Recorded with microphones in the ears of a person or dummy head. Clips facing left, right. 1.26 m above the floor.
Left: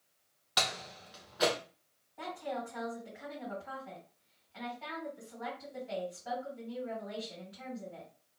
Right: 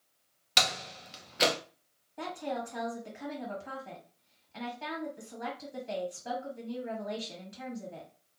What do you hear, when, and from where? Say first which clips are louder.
0.6 s a door slam: right 3 dB; 35° right (ahead or behind), 0.6 m
2.2 s a woman speaking: right 3 dB; 50° right (ahead or behind), 1.1 m